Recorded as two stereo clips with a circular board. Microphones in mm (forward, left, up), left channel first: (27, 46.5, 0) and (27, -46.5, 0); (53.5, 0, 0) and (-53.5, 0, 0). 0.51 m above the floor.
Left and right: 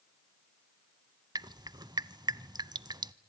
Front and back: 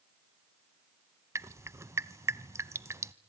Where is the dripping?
120° right, 0.6 m.